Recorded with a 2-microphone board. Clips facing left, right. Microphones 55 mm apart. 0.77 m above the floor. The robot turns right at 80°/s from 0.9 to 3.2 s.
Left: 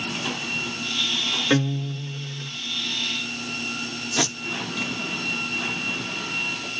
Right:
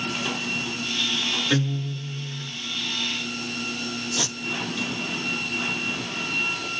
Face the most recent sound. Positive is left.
turn(degrees=75)  # may be behind; listen again after turning